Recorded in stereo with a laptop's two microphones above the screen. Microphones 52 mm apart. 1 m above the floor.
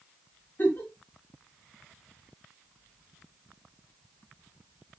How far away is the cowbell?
I don't hear a cowbell.